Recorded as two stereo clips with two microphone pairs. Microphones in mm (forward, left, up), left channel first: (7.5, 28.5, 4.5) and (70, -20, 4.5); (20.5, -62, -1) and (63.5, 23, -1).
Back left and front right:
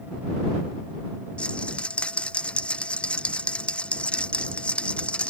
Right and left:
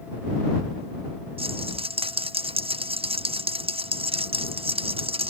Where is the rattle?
65° left.